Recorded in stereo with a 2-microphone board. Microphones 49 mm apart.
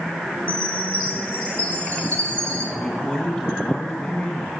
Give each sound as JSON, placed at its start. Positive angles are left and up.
{"t": 0.5, "sound": "a chime", "side_deg": 30, "distance_m": 7.5}
{"t": 2.8, "sound": "a man speaking", "side_deg": 15, "distance_m": 2.5}